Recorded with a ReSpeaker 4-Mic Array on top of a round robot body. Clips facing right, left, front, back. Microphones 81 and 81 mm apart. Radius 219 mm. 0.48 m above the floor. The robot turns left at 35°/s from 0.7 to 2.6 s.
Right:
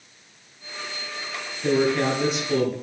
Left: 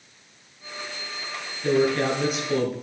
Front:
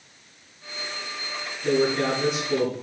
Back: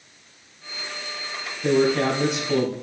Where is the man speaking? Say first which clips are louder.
Even, back 3 dB; 155° right, 6 m; by 2.7 s 170° left, 6 m.